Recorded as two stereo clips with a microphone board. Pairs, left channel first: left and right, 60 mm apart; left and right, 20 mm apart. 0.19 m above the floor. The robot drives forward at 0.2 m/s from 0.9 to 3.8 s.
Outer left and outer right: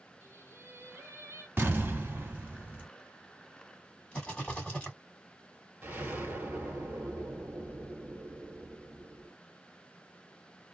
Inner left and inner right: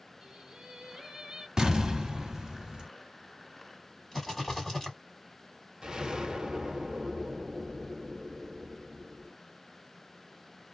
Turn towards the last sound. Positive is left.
turn(degrees=-25)  # may be behind; listen again after turning